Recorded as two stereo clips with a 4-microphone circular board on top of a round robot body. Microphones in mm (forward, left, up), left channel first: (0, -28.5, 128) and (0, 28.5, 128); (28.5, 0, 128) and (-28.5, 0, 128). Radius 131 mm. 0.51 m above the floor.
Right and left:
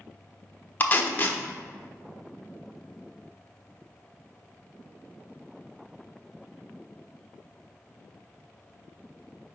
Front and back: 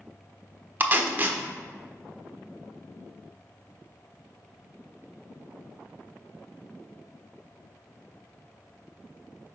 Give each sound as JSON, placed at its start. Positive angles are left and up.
{"t": 0.8, "sound": "tape being pulled", "azimuth_deg": -135, "distance_m": 0.8}